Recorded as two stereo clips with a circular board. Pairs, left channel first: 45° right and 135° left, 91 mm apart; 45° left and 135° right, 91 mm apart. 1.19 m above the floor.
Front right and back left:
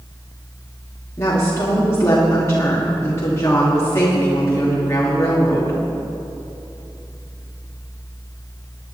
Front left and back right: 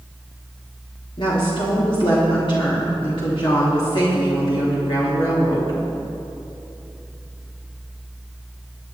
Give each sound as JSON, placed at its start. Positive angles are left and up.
{"t": 1.2, "sound": "a woman speaking", "azimuth_deg": 15, "distance_m": 2.0}